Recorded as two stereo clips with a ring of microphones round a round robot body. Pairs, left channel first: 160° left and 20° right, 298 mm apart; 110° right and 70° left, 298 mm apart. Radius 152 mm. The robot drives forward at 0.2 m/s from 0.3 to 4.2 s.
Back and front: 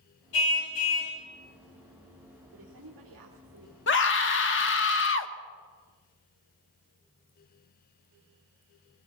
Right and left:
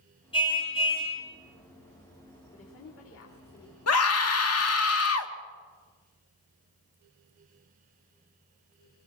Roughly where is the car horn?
Behind.